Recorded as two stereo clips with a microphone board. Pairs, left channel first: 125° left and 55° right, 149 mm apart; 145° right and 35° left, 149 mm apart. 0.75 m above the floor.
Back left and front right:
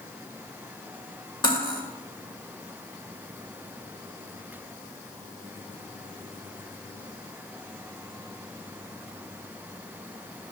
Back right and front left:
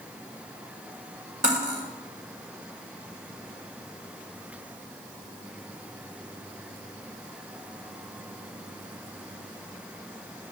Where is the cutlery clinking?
65° left, 2 m.